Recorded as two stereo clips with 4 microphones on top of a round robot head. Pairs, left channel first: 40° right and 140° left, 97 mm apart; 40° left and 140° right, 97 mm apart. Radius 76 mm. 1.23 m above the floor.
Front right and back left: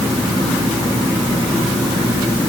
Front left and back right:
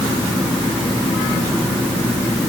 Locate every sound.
Only background noise.